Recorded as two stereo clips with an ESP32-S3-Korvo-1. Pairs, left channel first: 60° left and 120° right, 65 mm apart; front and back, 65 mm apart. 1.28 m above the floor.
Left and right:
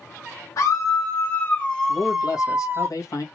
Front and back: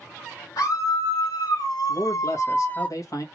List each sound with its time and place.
0.6 s a scream: 20° left, 1.2 m; by 2.9 s 70° right, 0.8 m
1.9 s a man speaking: 30° left, 1.5 m